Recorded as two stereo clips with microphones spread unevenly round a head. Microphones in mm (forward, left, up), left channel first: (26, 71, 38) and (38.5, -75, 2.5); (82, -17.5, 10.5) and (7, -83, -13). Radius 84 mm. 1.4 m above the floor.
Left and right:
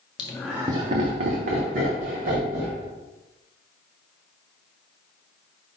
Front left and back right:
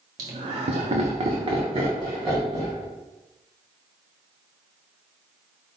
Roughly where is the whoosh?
I don't hear a whoosh.